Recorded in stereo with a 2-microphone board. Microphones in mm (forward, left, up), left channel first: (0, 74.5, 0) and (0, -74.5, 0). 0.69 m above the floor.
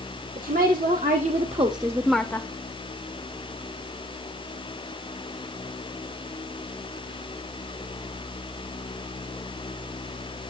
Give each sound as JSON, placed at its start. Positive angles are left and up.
{"t": 0.3, "sound": "a woman speaking", "side_deg": -70, "distance_m": 1.7}